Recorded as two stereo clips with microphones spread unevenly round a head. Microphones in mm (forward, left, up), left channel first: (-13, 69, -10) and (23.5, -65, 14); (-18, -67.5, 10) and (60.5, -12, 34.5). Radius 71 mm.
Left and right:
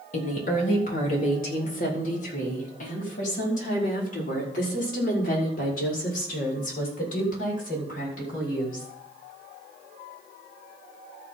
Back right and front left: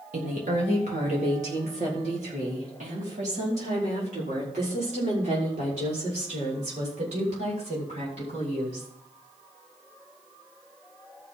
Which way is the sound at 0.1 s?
70° left.